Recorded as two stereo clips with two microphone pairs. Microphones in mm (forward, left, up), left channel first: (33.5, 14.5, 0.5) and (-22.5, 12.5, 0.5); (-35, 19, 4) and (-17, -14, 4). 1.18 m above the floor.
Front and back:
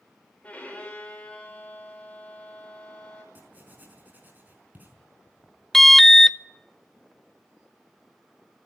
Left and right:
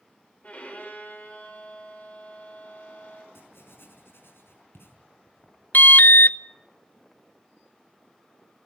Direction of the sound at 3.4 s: 125° left.